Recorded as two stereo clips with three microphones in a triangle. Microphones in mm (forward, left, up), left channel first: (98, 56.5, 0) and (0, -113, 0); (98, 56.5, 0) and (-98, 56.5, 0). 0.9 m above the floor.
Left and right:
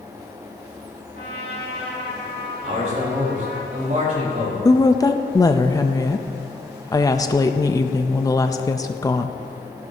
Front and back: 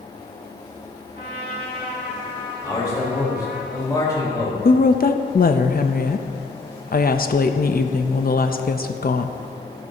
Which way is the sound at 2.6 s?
70° right.